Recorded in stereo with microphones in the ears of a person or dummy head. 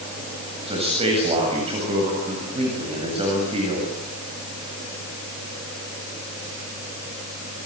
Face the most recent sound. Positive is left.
turn(degrees=-30)  # may be behind; listen again after turning